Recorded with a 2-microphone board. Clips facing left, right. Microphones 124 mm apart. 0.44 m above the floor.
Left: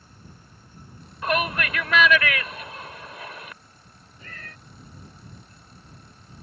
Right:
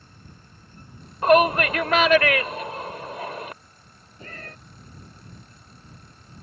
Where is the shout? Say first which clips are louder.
Right 9 dB; 45° right (ahead or behind).